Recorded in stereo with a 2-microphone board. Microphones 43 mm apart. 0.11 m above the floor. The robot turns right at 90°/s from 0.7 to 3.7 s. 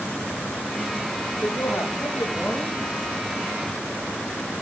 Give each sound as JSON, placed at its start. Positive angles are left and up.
{"t": 1.4, "sound": "a woman speaking", "azimuth_deg": 45, "distance_m": 4.5}